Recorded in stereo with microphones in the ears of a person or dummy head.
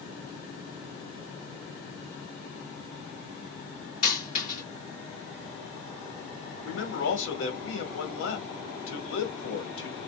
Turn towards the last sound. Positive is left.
turn(degrees=85)